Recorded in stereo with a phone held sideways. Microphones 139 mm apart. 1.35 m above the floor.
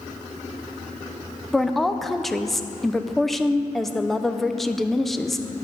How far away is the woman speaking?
About 0.5 m.